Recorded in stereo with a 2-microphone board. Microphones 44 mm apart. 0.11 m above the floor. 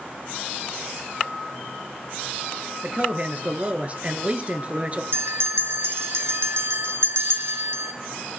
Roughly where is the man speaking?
Right.